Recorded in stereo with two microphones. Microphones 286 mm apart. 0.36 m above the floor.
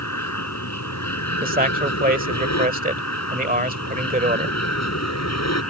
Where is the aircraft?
70° left (ahead or behind); by 5.7 s 65° left (ahead or behind).